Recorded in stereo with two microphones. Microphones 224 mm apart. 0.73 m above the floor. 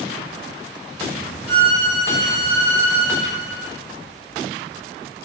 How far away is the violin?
About 1.0 m.